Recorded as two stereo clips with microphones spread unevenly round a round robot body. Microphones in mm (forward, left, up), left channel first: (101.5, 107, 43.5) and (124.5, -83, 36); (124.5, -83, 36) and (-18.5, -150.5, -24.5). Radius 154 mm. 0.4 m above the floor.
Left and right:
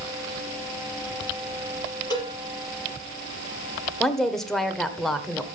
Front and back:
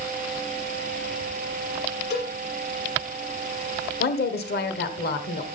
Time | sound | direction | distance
2.1 | a cowbell | 25° left | 6 m
4.0 | a woman speaking | 10° left | 1.7 m